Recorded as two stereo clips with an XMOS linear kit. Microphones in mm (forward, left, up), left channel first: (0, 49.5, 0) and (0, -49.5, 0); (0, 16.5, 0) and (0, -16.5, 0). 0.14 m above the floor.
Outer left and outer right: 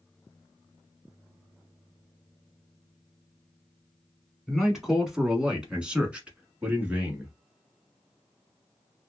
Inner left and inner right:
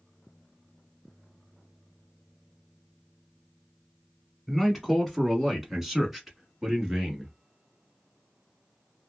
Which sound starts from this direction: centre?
A man speaking, at 4.5 s.